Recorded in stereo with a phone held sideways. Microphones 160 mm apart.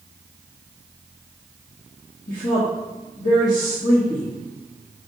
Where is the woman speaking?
60° left (ahead or behind), 1.7 m.